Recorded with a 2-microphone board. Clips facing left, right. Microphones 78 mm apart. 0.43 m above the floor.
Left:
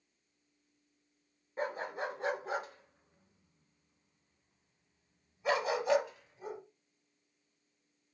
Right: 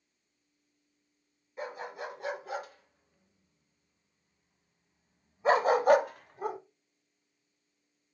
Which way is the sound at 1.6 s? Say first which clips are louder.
Left 2 dB; 35° left (ahead or behind).